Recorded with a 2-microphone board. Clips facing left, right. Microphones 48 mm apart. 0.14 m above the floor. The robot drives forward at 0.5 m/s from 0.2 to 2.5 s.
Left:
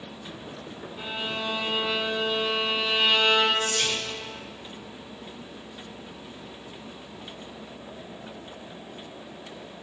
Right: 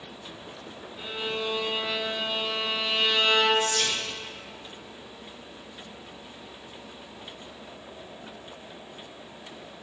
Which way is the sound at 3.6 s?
15° left (ahead or behind).